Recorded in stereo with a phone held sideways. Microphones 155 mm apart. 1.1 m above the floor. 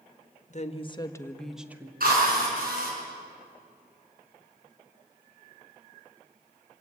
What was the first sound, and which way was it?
A woman speaking, 50° left (ahead or behind).